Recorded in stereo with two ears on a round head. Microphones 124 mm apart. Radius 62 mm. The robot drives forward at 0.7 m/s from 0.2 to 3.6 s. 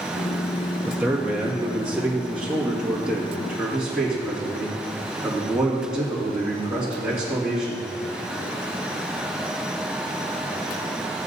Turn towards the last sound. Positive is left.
turn(degrees=0)  # may be behind; listen again after turning